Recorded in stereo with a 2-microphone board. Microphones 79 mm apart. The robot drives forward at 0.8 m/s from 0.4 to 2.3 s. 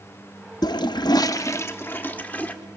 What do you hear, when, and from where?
0.6 s a toilet flushing: 55° left (ahead or behind), 0.5 m; by 2.5 s 20° left (ahead or behind), 1.2 m